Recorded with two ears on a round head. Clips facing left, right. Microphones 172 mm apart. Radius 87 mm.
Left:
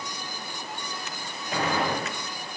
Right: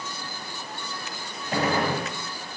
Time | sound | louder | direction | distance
1.5 | a gunshot | right 2 dB | 35° right (ahead or behind) | 4.5 m